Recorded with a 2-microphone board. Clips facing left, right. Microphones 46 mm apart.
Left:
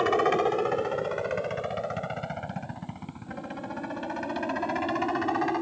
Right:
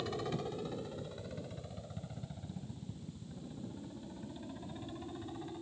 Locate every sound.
0.0 s a helicopter: 55° left (ahead or behind); by 5.6 s 70° left (ahead or behind)